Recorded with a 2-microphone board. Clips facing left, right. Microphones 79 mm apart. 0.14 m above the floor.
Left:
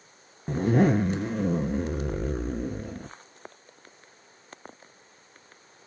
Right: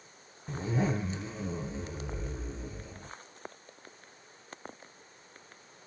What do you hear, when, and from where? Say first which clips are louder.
0.5 s a zipper: left 10 dB; 65° left (ahead or behind), 0.5 m